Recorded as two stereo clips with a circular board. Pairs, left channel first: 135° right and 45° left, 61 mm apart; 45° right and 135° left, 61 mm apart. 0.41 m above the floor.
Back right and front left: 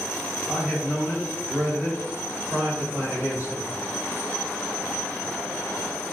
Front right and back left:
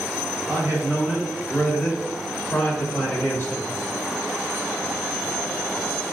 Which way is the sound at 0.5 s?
115° left.